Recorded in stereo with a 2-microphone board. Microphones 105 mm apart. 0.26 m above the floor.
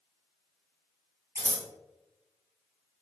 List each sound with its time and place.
1.4 s scissors: 30° right (ahead or behind), 2.0 m